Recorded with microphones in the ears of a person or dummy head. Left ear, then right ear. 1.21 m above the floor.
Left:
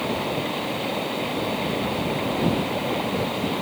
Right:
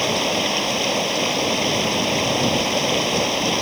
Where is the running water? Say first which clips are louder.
Right 6 dB; 85° right.